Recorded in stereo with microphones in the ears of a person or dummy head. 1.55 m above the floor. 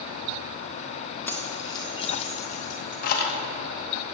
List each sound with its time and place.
1.3 s keys jangling: 10° left (ahead or behind), 1.5 m; by 3.4 s 55° left (ahead or behind), 2.5 m